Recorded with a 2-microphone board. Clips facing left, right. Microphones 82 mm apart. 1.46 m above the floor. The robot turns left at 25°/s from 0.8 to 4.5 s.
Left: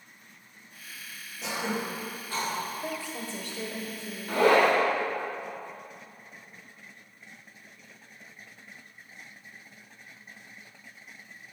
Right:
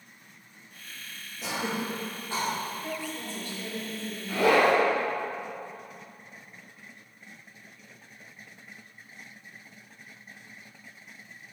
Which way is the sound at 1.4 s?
Centre (ahead or behind).